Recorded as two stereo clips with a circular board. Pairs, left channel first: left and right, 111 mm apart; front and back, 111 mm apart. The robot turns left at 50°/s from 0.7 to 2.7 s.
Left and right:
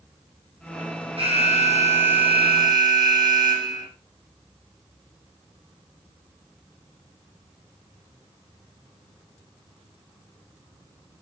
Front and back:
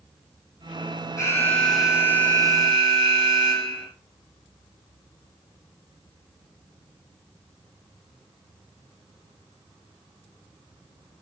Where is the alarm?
55° right, 8 m; by 3.9 s 135° right, 8 m.